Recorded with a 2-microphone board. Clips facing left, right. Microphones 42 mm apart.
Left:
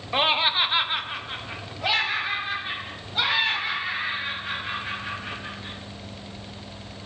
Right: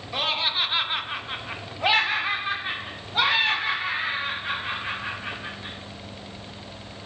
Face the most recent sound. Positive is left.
turn(degrees=-35)  # may be behind; listen again after turning